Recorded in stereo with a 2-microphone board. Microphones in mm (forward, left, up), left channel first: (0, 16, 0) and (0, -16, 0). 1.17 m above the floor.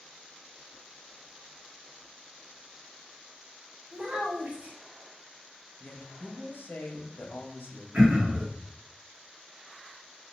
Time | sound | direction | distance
3.9 | a child speaking | 45° right (ahead or behind) | 1.2 m
5.8 | a woman speaking | 75° left (ahead or behind) | 0.9 m
7.9 | throat clearing | 25° right (ahead or behind) | 1.3 m